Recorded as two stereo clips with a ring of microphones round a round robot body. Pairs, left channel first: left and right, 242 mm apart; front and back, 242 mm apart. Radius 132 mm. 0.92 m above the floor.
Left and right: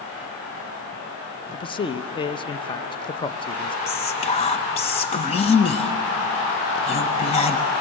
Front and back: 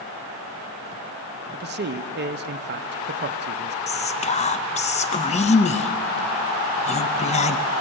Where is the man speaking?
155° left, 0.9 m.